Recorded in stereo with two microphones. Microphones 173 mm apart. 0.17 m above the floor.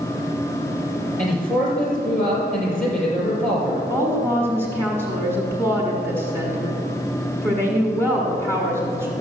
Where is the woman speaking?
15° left (ahead or behind), 1.5 m.